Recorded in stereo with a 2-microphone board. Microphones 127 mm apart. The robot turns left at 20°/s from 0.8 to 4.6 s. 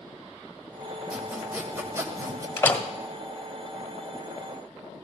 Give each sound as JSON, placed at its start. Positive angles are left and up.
{"t": 1.1, "sound": "sawing", "side_deg": -5, "distance_m": 1.8}
{"t": 2.6, "sound": "a door slam", "side_deg": 20, "distance_m": 1.5}